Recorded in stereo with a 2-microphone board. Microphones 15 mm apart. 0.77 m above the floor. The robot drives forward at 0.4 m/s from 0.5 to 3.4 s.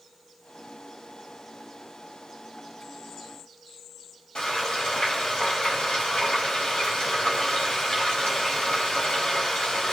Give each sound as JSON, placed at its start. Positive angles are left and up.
{"t": 4.3, "sound": "frying", "side_deg": 80, "distance_m": 5.0}